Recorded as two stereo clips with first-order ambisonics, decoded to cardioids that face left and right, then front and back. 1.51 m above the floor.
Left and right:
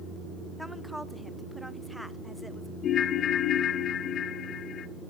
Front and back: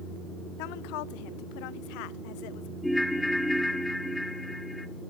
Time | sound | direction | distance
0.6 | a woman speaking | straight ahead | 0.8 m
2.8 | a ringtone | 85° left | 0.7 m